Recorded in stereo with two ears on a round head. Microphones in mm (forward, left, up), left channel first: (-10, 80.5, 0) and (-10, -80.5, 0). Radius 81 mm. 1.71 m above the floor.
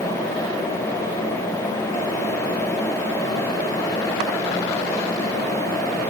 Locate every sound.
Only background noise.